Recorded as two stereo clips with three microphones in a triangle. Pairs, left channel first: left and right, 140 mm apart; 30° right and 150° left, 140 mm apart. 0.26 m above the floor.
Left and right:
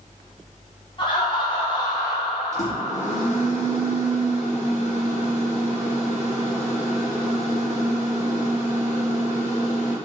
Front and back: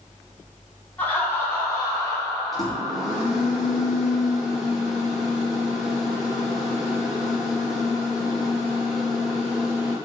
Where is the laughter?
45° left, 2.5 m; by 3.5 s 30° left, 5 m.